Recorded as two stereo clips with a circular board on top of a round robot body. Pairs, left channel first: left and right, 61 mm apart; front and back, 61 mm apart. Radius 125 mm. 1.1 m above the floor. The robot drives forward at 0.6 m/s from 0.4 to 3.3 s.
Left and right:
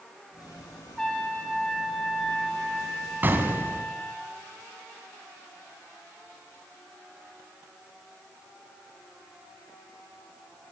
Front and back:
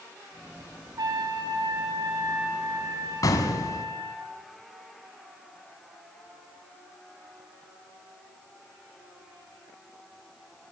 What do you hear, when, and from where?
1.0 s a trumpet: 170° left, 5 m
3.2 s an explosion: 30° right, 2 m